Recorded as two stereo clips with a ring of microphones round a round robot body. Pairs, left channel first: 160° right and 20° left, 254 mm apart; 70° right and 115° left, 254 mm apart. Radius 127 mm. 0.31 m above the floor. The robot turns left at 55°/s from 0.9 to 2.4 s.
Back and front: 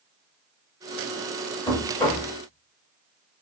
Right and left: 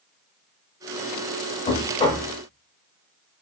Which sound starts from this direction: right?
Knocking, at 1.7 s.